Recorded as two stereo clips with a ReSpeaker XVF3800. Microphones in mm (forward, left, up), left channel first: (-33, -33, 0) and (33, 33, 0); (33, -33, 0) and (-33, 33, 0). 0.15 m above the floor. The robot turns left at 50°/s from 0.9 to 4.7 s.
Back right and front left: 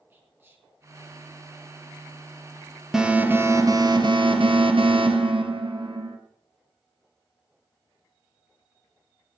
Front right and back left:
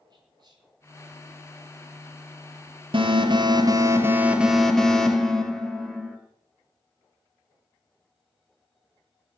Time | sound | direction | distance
0.1 | whispering | 105° left | 3 m
2.9 | an alarm | 130° left | 1.8 m